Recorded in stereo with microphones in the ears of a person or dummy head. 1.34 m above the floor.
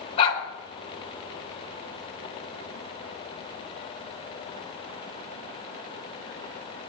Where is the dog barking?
35° left (ahead or behind), 3.5 m.